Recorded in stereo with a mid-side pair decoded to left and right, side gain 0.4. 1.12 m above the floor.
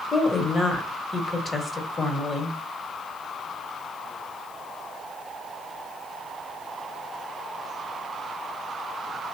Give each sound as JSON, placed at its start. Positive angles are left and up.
{"t": 0.1, "sound": "a woman speaking", "azimuth_deg": 35, "distance_m": 1.6}